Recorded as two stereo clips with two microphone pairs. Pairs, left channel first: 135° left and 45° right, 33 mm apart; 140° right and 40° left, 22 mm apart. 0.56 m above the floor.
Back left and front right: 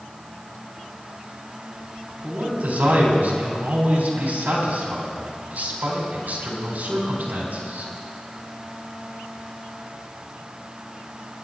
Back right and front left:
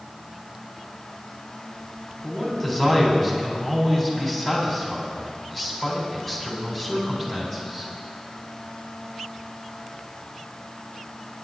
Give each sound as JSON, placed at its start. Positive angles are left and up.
{"t": 2.2, "sound": "a man speaking", "azimuth_deg": -65, "distance_m": 4.0}